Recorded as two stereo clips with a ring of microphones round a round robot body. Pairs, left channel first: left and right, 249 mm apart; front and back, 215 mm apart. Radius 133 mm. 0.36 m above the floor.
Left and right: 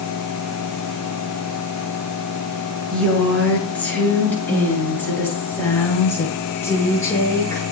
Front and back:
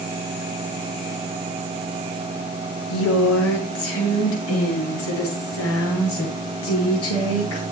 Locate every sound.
2.9 s a woman speaking: 5° left, 5.5 m; by 7.6 s 10° left, 8.5 m